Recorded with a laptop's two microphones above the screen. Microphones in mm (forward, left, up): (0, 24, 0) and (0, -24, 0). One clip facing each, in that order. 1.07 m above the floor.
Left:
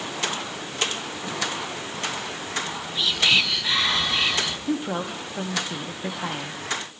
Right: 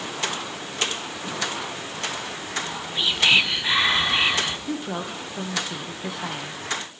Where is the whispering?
25° right (ahead or behind), 0.9 m.